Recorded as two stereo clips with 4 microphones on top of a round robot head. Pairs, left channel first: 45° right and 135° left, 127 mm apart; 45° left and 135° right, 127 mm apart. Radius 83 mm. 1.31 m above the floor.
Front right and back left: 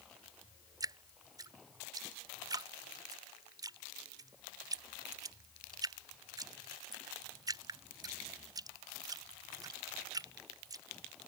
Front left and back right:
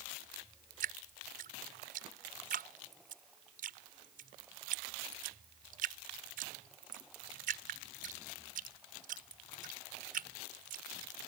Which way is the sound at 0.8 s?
160° right.